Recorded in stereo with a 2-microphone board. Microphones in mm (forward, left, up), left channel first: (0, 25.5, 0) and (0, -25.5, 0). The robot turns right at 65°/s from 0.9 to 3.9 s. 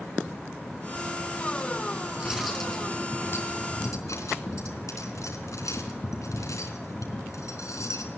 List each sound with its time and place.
2.2 s cutlery clinking: 25° right, 4 m; by 8.1 s 85° left, 4 m